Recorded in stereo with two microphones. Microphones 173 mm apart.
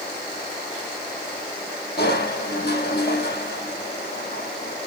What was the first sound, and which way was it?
Crushing, 70° left (ahead or behind).